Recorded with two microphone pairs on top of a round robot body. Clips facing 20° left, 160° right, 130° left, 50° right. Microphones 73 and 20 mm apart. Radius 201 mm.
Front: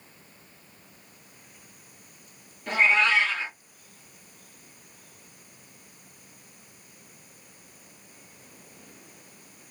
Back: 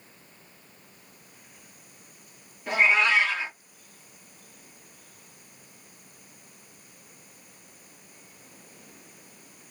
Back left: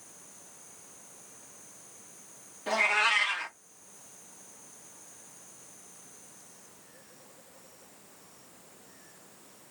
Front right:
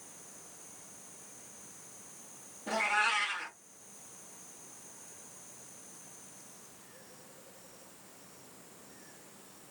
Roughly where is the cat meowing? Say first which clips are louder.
Even, back left 4 dB; behind left.